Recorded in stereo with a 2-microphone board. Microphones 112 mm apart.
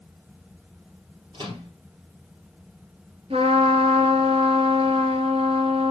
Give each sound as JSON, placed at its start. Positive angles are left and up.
{"t": 1.3, "sound": "a microwave", "side_deg": -50, "distance_m": 2.5}
{"t": 3.3, "sound": "a trumpet", "side_deg": -60, "distance_m": 1.6}